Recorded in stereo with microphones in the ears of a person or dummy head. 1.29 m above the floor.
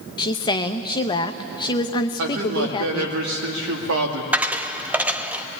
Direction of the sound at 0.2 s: 25° left (ahead or behind).